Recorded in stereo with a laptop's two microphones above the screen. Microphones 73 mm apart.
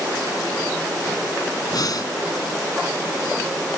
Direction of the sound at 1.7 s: 65° left (ahead or behind).